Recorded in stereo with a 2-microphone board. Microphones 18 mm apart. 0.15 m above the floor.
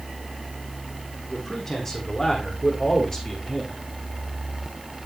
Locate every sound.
1.3 s a man speaking: 15° left (ahead or behind), 8 m; by 3.8 s 25° left (ahead or behind), 8 m